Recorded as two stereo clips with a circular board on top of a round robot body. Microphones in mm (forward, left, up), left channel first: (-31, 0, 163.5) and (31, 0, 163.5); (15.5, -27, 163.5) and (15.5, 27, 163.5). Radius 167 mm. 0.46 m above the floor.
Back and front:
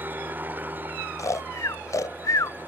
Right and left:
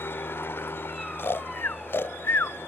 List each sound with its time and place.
0.0 s a helicopter: 55° right
1.2 s snoring: 140° right